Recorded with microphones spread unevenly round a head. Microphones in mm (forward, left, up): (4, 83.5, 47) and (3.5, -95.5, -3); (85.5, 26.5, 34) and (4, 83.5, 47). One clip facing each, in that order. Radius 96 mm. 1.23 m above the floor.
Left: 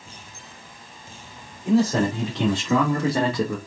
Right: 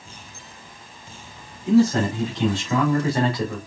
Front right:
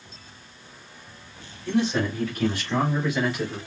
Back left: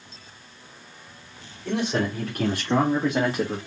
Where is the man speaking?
115° left, 3 m; by 3.6 s 90° left, 1.2 m.